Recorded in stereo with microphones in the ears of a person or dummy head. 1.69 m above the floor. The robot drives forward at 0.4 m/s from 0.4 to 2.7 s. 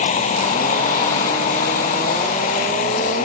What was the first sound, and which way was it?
A vehicle, 40° left (ahead or behind).